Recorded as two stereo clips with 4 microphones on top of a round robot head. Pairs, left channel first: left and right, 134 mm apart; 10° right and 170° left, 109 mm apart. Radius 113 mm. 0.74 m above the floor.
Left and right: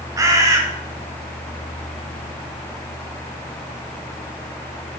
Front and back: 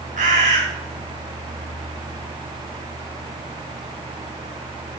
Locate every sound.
0.2 s a bird: 150° right, 0.7 m